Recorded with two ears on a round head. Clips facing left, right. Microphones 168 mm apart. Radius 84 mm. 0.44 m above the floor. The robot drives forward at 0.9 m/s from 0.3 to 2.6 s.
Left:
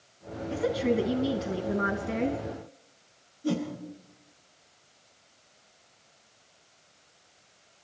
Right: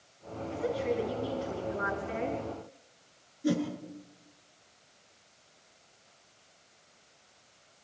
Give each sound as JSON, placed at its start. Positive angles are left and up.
{"t": 0.5, "sound": "a woman speaking", "side_deg": 65, "distance_m": 3.0}
{"t": 3.4, "sound": "a whoosh", "side_deg": -25, "distance_m": 7.5}